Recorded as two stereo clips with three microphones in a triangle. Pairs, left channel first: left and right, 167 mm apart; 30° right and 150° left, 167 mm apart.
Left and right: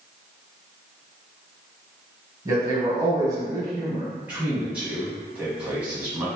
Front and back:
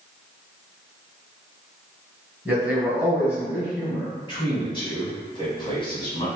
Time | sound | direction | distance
2.5 | a man speaking | 140° right | 1.5 m
4.3 | a man speaking | 15° right | 1.8 m